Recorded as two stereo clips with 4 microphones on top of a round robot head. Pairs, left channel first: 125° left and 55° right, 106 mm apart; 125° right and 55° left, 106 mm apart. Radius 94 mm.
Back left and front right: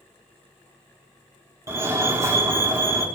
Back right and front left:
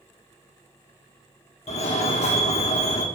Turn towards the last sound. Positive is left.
turn(degrees=-115)